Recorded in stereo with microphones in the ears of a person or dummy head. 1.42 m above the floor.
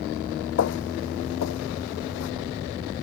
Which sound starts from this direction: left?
Footsteps, at 0.6 s.